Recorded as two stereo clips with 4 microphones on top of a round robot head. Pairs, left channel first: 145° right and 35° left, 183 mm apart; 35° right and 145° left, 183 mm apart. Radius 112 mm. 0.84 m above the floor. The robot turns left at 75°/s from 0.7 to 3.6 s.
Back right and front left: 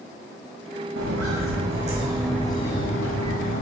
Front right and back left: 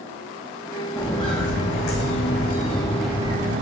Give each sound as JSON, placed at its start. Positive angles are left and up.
{"t": 1.0, "sound": "footsteps", "azimuth_deg": 55, "distance_m": 2.5}